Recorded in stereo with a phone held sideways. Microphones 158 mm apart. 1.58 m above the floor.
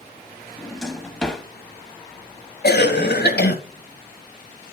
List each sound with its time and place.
0.6 s a drawer: 5° left (ahead or behind), 1.0 m
2.6 s a cough: 80° left, 1.3 m